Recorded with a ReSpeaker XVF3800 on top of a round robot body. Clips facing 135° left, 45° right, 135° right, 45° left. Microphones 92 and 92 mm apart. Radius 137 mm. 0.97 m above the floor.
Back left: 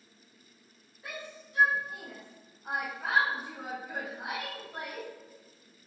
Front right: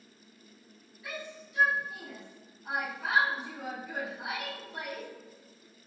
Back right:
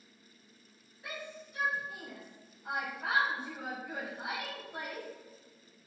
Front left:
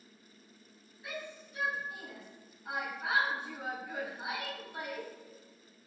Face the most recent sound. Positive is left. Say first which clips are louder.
# front right 2 dB, front left 1 dB
turn(degrees=-175)